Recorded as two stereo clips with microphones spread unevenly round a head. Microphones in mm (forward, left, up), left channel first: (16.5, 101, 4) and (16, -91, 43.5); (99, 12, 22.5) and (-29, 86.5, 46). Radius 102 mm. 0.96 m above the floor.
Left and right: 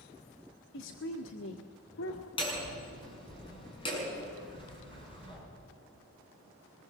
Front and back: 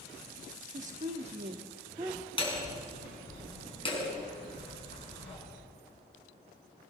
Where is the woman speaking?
115° left, 1.6 m; by 2.3 s 75° left, 1.5 m.